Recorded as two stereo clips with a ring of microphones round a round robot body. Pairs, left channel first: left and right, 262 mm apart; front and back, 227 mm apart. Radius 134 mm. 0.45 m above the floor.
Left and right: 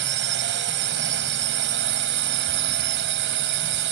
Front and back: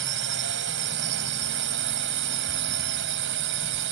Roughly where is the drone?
Behind right.